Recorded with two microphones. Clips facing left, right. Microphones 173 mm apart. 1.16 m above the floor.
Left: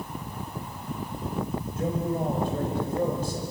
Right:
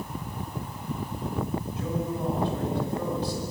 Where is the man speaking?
50° left (ahead or behind), 6 m.